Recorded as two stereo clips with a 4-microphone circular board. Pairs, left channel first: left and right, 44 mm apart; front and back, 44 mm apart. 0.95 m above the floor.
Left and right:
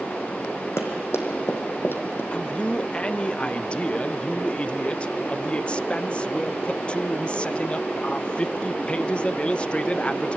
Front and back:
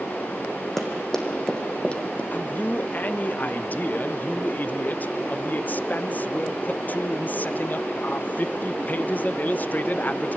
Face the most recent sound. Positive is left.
turn(degrees=35)